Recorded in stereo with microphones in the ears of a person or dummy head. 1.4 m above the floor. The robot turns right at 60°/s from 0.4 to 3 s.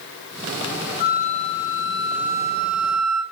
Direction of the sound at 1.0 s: 150° left.